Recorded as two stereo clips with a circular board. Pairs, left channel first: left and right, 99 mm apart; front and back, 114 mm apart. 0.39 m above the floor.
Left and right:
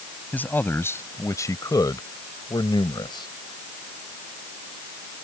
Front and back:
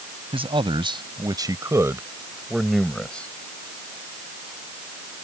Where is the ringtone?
No ringtone in this recording.